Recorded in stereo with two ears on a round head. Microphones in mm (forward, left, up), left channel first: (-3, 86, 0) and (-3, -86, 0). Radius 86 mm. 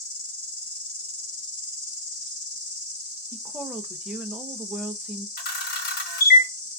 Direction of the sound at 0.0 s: 40° left (ahead or behind).